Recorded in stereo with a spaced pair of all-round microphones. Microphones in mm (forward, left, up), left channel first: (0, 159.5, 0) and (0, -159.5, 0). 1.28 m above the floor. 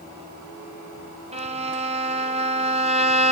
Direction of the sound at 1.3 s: 20° right (ahead or behind).